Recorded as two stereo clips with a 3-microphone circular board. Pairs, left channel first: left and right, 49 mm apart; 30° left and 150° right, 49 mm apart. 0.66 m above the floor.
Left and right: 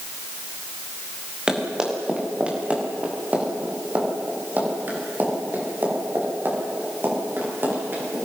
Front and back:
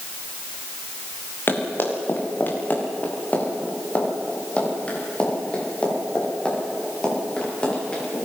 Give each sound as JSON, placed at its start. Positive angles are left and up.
{"t": 1.5, "sound": "running footsteps", "azimuth_deg": -10, "distance_m": 6.5}